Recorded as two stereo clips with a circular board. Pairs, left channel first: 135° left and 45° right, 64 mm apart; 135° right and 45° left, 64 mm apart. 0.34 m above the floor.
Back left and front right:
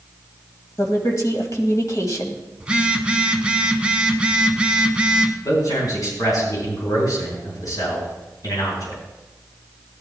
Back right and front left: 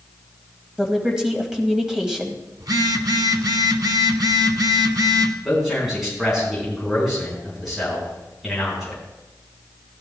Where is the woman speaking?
125° left, 2.0 m.